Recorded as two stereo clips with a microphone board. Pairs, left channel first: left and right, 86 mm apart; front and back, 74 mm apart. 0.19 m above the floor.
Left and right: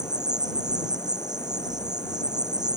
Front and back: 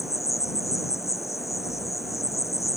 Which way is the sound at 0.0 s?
45° right.